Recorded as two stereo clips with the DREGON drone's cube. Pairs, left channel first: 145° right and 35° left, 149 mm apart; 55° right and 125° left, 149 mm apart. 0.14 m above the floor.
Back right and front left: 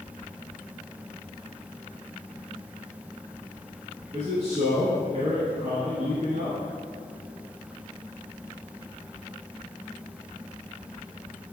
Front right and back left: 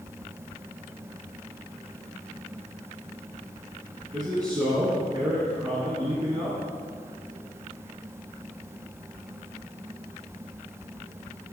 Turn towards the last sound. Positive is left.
turn(degrees=65)